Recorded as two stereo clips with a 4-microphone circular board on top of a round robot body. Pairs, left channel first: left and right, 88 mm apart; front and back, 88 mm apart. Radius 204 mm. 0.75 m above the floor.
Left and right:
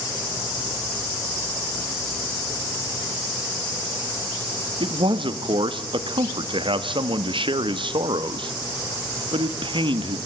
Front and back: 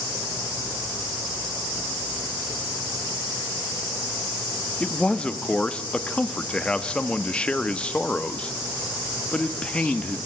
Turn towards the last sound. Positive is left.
turn(degrees=-80)